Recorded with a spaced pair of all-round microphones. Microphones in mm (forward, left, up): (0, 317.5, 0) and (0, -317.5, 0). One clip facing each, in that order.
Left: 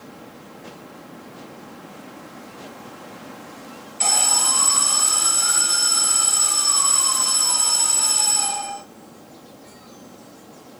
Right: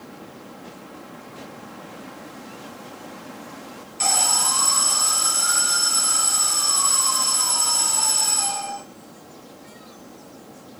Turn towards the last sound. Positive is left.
turn(degrees=-65)  # may be behind; listen again after turning